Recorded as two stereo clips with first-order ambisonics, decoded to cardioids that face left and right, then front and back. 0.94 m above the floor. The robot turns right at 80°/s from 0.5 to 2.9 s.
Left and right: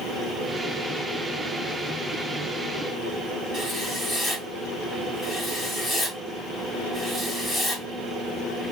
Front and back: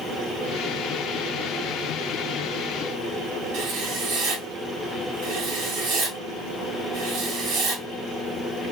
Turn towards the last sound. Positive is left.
turn(degrees=175)